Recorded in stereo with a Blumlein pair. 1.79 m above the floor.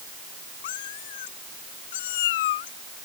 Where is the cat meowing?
55° left.